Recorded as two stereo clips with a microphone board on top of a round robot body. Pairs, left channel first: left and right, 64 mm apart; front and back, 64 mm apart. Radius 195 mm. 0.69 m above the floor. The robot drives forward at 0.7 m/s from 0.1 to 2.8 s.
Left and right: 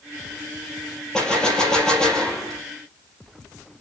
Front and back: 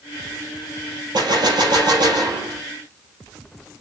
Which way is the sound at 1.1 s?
170° left.